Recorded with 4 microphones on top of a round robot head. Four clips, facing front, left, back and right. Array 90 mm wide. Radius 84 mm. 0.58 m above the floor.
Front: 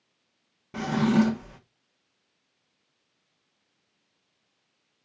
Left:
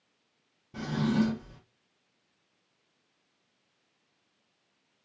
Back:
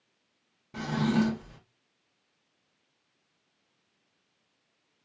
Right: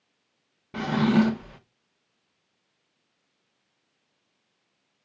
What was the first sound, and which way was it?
A drawer, 65° right.